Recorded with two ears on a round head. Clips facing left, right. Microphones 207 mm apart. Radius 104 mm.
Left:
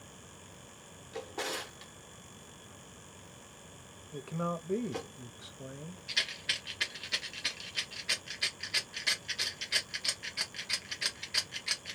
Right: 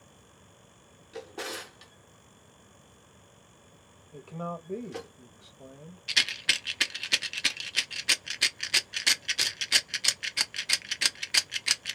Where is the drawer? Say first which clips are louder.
Even; centre (ahead or behind), 0.6 m.